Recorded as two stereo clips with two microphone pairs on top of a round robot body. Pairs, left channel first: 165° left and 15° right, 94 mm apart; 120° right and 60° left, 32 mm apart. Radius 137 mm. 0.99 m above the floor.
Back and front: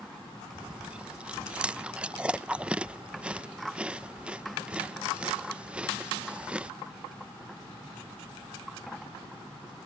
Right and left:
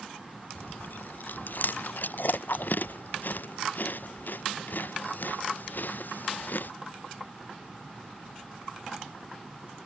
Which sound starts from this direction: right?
Chewing, at 0.6 s.